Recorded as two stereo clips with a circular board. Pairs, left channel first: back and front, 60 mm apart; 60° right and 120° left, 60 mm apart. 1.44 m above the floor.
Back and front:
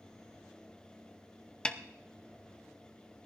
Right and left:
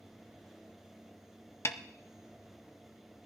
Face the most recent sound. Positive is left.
turn(degrees=-105)